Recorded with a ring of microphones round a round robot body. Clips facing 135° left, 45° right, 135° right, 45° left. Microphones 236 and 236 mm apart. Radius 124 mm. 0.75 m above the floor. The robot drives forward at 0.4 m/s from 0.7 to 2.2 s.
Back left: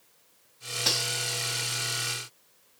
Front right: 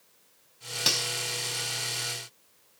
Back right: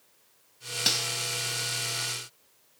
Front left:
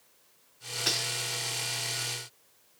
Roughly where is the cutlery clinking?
Right.